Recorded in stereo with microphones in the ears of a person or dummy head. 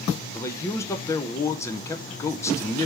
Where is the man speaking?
15° left (ahead or behind), 0.6 m.